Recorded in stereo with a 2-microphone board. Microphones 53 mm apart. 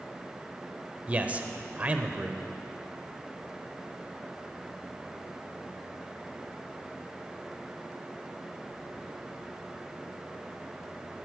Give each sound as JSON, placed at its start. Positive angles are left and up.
{"t": 1.1, "sound": "a man speaking", "side_deg": -25, "distance_m": 0.9}